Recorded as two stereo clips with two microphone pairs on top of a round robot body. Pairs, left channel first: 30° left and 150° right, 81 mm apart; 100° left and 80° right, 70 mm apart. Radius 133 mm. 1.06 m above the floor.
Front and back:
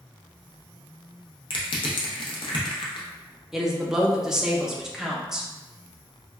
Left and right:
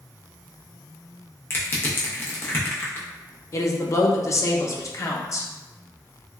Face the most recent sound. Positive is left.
turn(degrees=120)